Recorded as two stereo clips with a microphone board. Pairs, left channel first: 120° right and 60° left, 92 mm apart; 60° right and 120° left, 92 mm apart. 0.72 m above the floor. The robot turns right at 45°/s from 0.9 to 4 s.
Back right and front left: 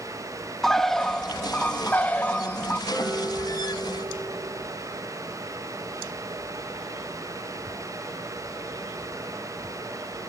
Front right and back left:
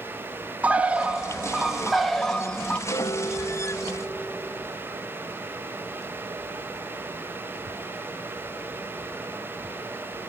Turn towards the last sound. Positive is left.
turn(degrees=25)